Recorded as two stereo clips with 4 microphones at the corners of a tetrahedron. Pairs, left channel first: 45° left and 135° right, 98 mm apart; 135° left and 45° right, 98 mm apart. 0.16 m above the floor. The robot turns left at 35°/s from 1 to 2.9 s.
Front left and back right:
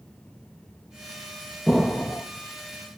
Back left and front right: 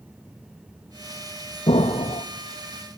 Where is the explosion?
130° left, 1.7 m; by 2.2 s 110° left, 1.7 m.